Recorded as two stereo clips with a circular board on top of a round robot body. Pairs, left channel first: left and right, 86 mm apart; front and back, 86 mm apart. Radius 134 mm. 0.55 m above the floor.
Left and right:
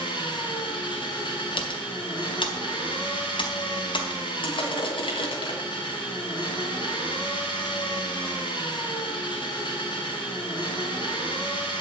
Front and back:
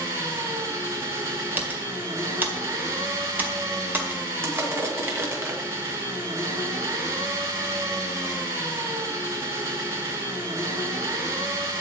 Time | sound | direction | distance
0.0 | an engine running | 125° left | 5 m
1.6 | typing on a keyboard | 110° left | 1.9 m
4.4 | crushing | 115° left | 2.5 m